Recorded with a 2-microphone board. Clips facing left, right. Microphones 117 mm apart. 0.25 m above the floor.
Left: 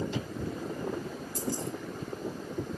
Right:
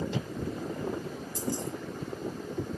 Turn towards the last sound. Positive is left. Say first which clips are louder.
# right 1 dB
turn(degrees=-20)  # may be behind; listen again after turning